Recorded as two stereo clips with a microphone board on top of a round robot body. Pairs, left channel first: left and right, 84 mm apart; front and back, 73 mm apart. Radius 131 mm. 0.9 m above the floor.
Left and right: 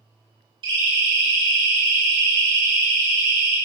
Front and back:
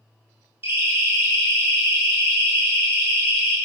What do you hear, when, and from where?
0.6 s a siren: 120° right, 6.5 m; by 3.5 s 115° right, 10 m